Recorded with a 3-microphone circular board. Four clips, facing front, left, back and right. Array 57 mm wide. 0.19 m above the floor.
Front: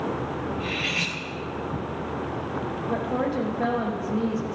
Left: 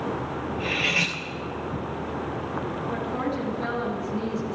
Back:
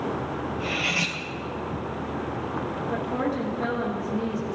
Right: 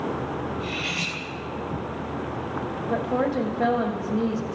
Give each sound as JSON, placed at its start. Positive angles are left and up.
{"t": 0.6, "sound": "cutlery clinking", "azimuth_deg": 80, "distance_m": 2.0}
{"t": 2.9, "sound": "a woman speaking", "azimuth_deg": -65, "distance_m": 5.5}